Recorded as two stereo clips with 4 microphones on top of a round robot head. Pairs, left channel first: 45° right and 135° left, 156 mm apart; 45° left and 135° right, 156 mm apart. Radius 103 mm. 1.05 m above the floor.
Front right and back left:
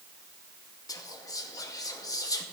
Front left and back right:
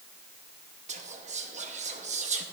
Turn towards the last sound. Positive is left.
turn(degrees=-110)